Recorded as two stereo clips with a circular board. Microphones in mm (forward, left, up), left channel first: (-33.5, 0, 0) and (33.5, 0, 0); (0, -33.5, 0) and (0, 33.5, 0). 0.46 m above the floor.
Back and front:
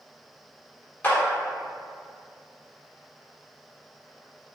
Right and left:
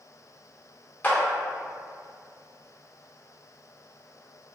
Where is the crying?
No crying in this recording.